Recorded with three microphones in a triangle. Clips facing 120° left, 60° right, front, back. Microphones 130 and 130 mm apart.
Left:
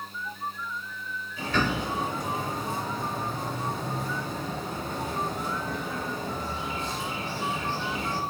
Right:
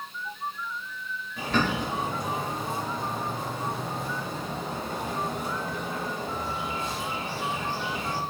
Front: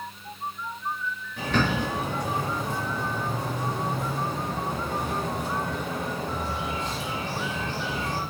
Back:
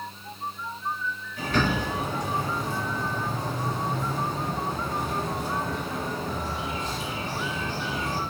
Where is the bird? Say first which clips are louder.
Right 1 dB, even; 25° right, 1.2 m.